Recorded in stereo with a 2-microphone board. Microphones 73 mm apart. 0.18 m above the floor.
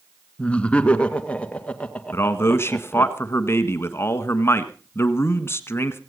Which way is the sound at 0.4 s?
15° left (ahead or behind).